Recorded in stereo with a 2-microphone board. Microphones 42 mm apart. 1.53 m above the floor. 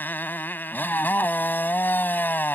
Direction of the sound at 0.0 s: 50° left (ahead or behind).